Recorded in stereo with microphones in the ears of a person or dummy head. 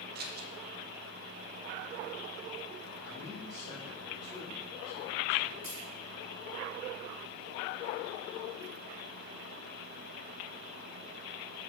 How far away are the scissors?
About 0.6 m.